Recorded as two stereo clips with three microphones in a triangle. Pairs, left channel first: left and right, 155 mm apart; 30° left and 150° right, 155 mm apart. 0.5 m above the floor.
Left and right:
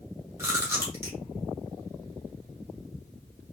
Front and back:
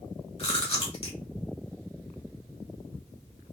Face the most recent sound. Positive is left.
turn(degrees=-20)